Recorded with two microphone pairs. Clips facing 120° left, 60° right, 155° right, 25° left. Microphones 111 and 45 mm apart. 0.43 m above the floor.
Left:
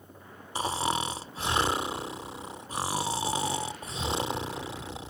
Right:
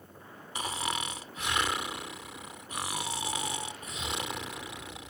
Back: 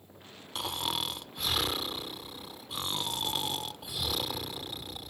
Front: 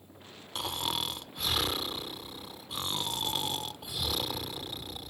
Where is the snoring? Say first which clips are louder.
Left 6 dB, even; 115° left.